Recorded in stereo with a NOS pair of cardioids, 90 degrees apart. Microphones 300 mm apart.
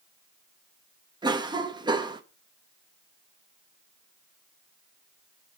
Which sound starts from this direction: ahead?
A cough, at 1.2 s.